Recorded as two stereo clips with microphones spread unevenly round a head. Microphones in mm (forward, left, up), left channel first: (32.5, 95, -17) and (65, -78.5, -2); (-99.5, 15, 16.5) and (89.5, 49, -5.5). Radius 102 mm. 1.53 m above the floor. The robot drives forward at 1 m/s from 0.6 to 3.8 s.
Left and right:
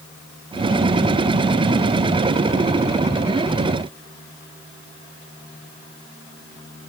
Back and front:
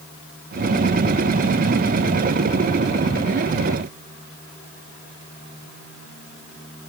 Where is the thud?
I don't hear a thud.